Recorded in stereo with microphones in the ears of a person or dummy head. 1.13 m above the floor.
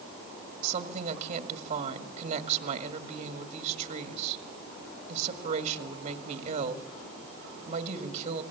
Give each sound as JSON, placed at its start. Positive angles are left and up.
{"t": 0.6, "sound": "a woman speaking", "side_deg": -40, "distance_m": 1.9}